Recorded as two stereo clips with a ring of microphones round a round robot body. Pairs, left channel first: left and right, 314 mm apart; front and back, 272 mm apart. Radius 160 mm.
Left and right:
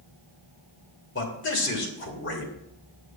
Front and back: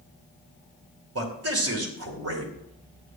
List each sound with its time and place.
1.1 s a man speaking: 145° left, 2.5 m